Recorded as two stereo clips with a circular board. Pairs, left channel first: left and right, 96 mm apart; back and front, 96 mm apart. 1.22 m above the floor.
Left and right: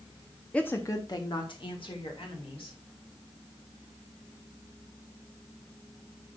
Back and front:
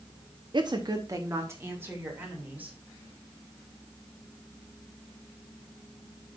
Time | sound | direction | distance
0.5 | a woman speaking | 15° left | 0.8 m